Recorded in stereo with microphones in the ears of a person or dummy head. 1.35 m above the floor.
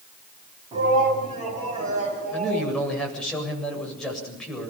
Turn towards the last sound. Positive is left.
turn(degrees=0)  # may be behind; listen again after turning